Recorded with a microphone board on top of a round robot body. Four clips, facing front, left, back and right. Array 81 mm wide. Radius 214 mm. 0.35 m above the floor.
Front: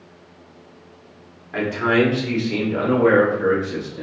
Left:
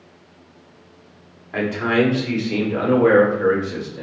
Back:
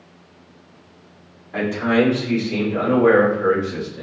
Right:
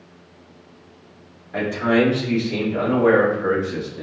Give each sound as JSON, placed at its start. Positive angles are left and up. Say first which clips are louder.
{"t": 1.5, "sound": "a man speaking", "louder": "even, even", "azimuth_deg": 60, "distance_m": 1.8}